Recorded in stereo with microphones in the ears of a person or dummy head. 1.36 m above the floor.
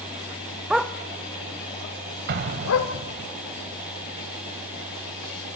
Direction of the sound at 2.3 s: 60° right (ahead or behind).